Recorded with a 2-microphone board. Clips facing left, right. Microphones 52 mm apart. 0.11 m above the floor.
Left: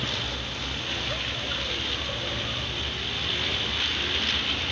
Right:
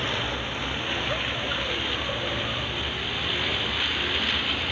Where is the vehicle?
25° right (ahead or behind); by 4.7 s 15° right (ahead or behind).